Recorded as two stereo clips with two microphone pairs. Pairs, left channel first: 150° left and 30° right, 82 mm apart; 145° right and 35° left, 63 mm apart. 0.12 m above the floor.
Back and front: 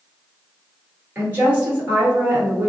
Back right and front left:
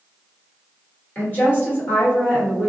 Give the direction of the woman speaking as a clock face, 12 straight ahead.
3 o'clock.